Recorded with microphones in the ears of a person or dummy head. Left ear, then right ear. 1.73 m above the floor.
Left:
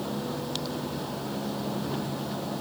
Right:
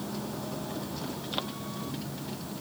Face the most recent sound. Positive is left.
No sound to turn to.